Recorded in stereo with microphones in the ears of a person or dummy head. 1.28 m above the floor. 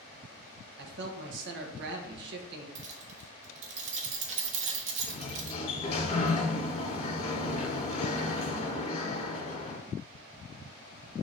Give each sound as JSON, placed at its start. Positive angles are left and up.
{"t": 0.8, "sound": "a man speaking", "side_deg": -65, "distance_m": 1.2}
{"t": 2.8, "sound": "keys jangling", "side_deg": -45, "distance_m": 1.2}
{"t": 5.0, "sound": "a sliding door", "side_deg": 30, "distance_m": 2.0}